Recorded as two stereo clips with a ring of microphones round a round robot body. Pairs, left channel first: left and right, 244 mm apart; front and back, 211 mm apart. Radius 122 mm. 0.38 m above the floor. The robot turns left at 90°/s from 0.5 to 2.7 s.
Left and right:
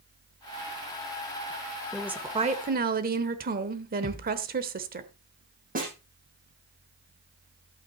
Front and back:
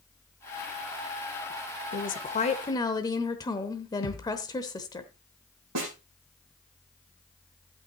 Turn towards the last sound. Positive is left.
turn(degrees=-150)